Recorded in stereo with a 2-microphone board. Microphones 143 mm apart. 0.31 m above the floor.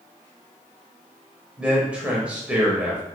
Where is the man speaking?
10° right (ahead or behind), 0.9 m.